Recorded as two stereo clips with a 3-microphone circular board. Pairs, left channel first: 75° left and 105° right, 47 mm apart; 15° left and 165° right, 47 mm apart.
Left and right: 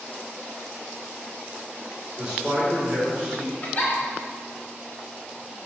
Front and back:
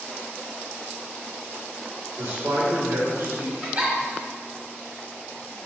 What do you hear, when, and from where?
2.2 s a man speaking: straight behind, 3 m; by 3.5 s 165° left, 4.5 m
3.6 s a giggle: 135° left, 2.5 m